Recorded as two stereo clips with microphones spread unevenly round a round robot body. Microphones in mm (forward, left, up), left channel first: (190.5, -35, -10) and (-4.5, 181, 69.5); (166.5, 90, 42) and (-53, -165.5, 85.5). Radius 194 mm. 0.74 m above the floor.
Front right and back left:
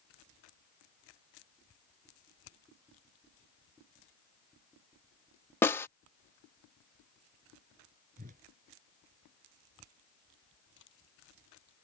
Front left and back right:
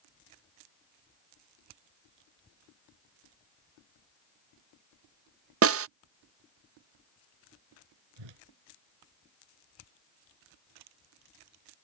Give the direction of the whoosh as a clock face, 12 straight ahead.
5 o'clock.